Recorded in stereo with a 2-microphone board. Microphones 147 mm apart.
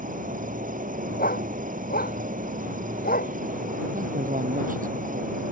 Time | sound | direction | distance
0.0 | an insect | 65° right (ahead or behind) | ?
1.2 | a dog barking | 90° left | ?
3.9 | a man speaking | 65° right (ahead or behind) | ?